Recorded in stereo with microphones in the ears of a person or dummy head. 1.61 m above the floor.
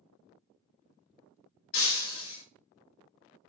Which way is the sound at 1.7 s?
55° left (ahead or behind).